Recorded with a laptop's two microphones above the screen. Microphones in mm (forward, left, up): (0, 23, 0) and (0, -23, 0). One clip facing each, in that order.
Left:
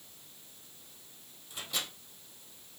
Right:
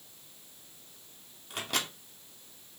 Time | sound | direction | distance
1.5 | a microwave | 65° right (ahead or behind) | 2.5 m